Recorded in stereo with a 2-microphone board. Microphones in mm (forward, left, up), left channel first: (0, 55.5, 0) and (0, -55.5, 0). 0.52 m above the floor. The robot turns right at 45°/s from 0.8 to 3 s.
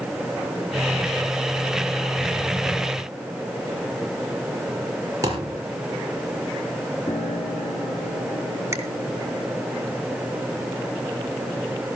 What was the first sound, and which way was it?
A thud, 30° right (ahead or behind).